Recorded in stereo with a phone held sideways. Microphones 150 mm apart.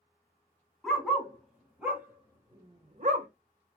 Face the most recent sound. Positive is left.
turn(degrees=-70)  # may be behind; listen again after turning